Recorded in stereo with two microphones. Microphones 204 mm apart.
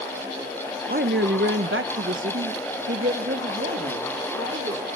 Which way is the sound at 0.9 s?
45° right (ahead or behind).